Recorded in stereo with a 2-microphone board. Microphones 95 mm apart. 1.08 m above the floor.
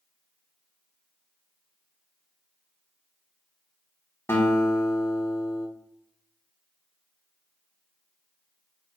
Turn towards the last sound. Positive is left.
turn(degrees=25)  # may be behind; listen again after turning